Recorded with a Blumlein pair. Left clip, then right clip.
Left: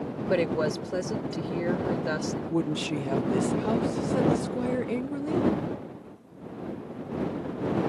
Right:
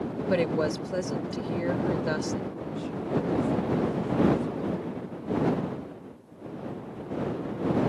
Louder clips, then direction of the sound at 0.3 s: Even; 5° left.